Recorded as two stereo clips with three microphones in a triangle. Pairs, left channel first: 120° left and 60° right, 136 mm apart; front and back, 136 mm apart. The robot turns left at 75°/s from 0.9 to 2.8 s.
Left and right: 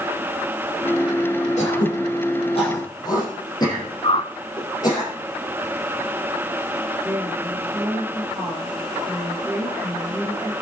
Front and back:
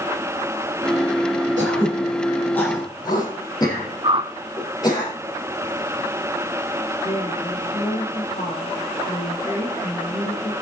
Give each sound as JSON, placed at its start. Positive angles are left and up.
{"t": 1.6, "sound": "throat clearing", "azimuth_deg": 155, "distance_m": 5.5}
{"t": 4.0, "sound": "a whoosh", "azimuth_deg": 145, "distance_m": 0.6}
{"t": 7.0, "sound": "a woman speaking", "azimuth_deg": 25, "distance_m": 3.5}